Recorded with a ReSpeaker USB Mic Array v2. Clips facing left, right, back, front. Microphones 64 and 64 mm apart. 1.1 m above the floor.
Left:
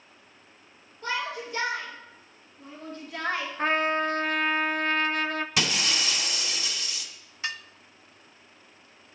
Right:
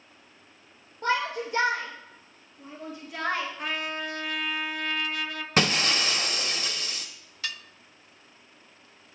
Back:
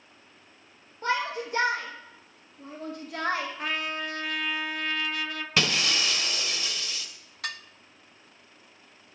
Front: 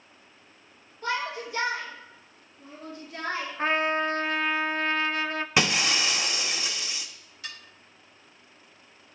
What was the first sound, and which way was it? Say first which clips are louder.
A shout: right 4 dB, back 2 dB; 125° right.